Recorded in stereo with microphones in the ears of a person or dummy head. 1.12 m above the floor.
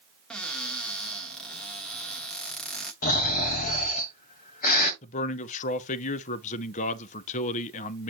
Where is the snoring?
40° left (ahead or behind), 1.6 m.